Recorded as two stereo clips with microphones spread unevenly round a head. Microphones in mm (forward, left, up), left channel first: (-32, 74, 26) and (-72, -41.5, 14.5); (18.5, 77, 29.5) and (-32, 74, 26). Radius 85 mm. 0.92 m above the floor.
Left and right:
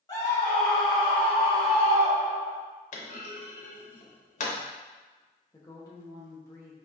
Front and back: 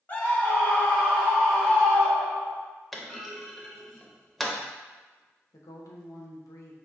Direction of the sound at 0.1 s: 30° left.